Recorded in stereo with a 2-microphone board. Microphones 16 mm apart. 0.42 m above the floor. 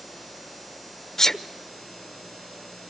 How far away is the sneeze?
About 0.9 m.